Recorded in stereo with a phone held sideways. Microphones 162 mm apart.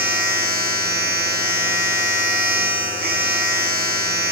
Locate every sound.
0.0 s a machine running: 70° right (ahead or behind), 1.7 m